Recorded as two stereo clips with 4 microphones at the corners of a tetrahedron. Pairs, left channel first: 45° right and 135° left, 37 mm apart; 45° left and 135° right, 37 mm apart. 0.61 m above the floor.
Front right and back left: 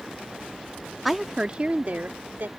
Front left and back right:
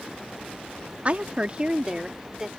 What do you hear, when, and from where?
1.1 s a woman speaking: 135° right; by 2.5 s 150° left